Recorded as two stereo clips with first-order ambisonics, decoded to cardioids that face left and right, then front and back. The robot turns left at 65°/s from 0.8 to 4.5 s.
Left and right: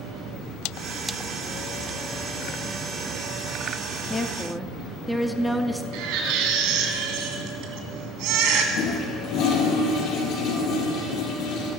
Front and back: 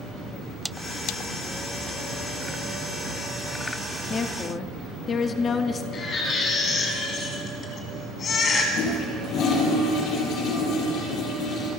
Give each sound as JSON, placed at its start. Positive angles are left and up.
{"t": 4.1, "sound": "a woman speaking", "azimuth_deg": 25, "distance_m": 0.8}
{"t": 5.9, "sound": "a baby crying", "azimuth_deg": -60, "distance_m": 2.0}
{"t": 8.7, "sound": "a toilet flushing", "azimuth_deg": 45, "distance_m": 3.5}